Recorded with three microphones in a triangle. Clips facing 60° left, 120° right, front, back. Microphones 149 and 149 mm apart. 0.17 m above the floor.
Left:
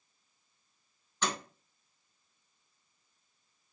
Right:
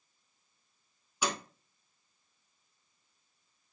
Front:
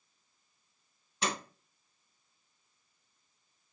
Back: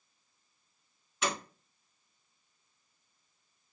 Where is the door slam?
45° right, 1.1 m.